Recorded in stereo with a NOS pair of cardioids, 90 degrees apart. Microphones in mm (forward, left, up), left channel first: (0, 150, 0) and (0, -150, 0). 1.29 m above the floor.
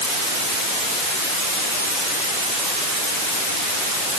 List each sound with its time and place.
Only background noise.